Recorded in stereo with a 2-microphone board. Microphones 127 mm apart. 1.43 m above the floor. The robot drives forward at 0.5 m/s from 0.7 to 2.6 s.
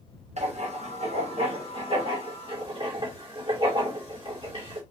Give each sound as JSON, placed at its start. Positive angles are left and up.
{"t": 0.4, "sound": "writing", "side_deg": -60, "distance_m": 2.0}